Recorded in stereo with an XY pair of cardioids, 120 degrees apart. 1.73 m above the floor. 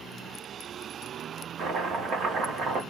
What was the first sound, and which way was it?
Chopping, 60° right.